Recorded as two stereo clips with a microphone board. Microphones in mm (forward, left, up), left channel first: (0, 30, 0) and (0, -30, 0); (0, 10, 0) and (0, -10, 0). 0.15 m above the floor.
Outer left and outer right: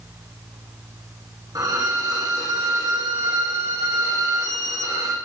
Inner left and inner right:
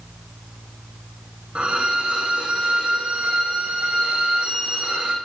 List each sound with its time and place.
1.6 s a violin: 80° right, 6.5 m